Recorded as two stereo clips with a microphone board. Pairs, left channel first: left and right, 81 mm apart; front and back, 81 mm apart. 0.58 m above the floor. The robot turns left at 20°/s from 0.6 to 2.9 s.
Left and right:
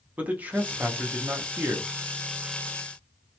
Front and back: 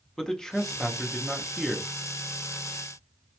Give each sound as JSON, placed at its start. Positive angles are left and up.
{"t": 0.2, "sound": "a man speaking", "azimuth_deg": -70, "distance_m": 0.6}